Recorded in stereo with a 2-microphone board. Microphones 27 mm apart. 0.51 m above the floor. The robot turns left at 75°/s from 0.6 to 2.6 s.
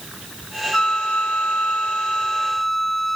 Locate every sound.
0.7 s a flute: 145° left; by 3.2 s 5° left